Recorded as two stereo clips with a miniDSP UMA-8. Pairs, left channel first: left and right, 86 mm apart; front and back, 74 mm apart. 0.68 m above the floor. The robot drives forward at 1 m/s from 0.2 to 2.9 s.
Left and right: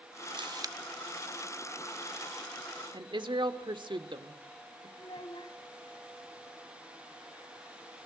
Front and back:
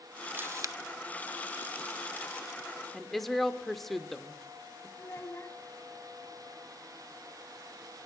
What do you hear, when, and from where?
0.3 s a camera shutter: 110° right, 0.6 m; by 0.8 s 140° right, 0.8 m
2.9 s a woman speaking: 85° right, 2.0 m
5.0 s a child speaking: 60° left, 3 m